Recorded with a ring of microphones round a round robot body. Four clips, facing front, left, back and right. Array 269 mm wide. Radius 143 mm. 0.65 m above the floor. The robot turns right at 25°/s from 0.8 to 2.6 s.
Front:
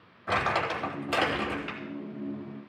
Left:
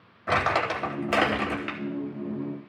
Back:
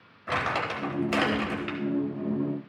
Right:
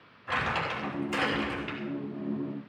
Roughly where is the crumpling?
Left.